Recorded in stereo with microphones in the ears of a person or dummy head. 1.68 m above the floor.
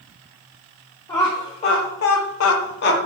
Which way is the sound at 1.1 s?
20° left (ahead or behind).